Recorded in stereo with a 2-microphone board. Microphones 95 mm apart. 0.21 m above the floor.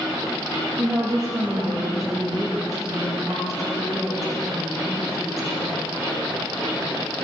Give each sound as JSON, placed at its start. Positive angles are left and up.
{"t": 0.8, "sound": "a woman speaking", "side_deg": -40, "distance_m": 4.0}